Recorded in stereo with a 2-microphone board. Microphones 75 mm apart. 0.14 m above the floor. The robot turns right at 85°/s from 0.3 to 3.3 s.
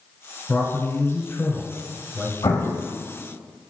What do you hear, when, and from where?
0.5 s a man speaking: 40° left, 1.1 m; by 2.3 s 165° right, 1.1 m
2.4 s an explosion: 100° left, 1.1 m; by 2.9 s 135° left, 1.1 m